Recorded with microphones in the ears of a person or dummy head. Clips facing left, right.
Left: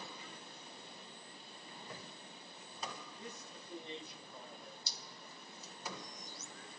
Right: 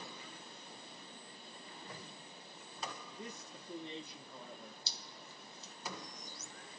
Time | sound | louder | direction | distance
3.1 | a man speaking | right 2 dB | 55° right (ahead or behind) | 0.8 m
4.9 | dripping | even | 25° right (ahead or behind) | 0.7 m